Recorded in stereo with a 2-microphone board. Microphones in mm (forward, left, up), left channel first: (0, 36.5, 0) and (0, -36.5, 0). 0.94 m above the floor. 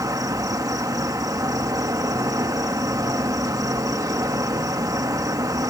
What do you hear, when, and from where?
0.0 s an insect: 55° right (ahead or behind)